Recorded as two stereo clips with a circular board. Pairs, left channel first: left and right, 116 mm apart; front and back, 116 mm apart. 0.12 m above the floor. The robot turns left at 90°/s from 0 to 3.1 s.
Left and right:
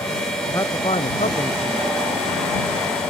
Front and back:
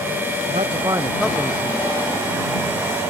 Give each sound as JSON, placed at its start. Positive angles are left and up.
{"t": 0.5, "sound": "a man speaking", "azimuth_deg": 160}